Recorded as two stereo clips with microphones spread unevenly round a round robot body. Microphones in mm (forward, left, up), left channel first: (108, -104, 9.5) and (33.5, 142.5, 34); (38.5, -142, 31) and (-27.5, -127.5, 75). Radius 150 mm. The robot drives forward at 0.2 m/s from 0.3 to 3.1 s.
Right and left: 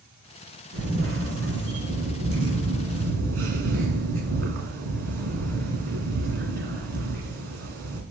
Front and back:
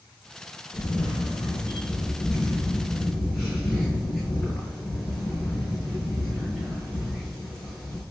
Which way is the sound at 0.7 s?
65° left.